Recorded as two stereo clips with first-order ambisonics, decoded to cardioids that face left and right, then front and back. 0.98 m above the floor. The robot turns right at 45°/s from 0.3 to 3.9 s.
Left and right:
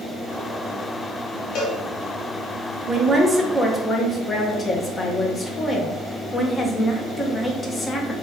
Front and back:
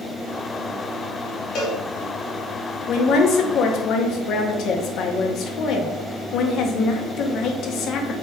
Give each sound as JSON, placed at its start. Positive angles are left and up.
{"t": 1.6, "sound": "a cowbell", "azimuth_deg": 45, "distance_m": 0.7}
{"t": 2.9, "sound": "a woman speaking", "azimuth_deg": -25, "distance_m": 0.5}